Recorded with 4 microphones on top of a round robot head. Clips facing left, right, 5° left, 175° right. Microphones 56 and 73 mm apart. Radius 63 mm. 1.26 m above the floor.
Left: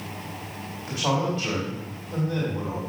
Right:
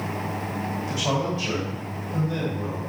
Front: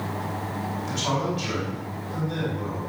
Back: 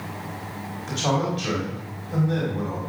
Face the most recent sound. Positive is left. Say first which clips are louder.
# left 2 dB, back 4 dB
turn(degrees=145)